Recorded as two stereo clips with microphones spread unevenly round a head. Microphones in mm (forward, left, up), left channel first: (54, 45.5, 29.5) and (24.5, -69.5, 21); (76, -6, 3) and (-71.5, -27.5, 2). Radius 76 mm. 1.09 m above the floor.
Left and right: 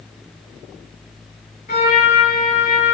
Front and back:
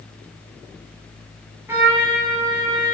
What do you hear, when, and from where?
1.7 s a trumpet: 110° left, 6 m